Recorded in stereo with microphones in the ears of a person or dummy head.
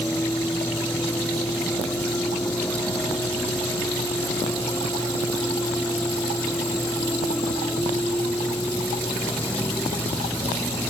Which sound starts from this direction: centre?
A vehicle, at 0.0 s.